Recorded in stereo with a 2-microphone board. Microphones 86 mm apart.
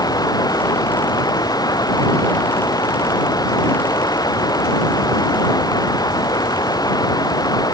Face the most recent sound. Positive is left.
turn(degrees=50)  # may be behind; listen again after turning